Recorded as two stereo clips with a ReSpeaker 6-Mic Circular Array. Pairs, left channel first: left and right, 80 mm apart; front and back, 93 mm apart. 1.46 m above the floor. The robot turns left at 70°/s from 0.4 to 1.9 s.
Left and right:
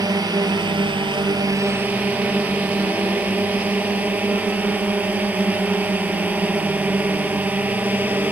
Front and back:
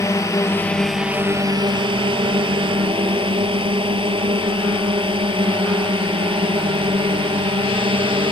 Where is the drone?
55° right; by 8.3 s 160° right.